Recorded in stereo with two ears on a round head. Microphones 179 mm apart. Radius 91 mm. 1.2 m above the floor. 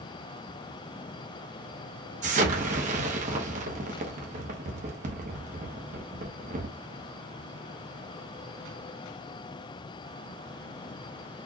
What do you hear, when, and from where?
2.2 s an explosion: 35° right (ahead or behind), 1.2 m